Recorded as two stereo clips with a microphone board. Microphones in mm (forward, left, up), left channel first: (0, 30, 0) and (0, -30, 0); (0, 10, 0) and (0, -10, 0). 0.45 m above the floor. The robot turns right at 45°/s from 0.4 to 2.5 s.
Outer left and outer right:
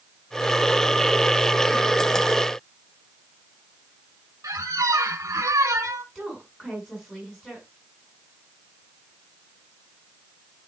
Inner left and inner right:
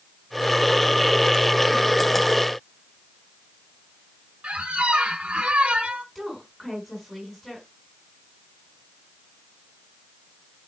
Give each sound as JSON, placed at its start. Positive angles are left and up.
{"t": 4.4, "sound": "a squeak", "side_deg": -75, "distance_m": 0.8}
{"t": 6.2, "sound": "a woman speaking", "side_deg": -5, "distance_m": 5.0}